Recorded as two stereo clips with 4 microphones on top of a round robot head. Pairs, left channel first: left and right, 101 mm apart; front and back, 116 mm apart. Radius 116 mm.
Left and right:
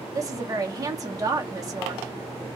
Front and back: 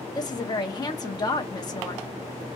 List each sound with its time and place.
0.1 s a woman speaking: 45° right, 0.8 m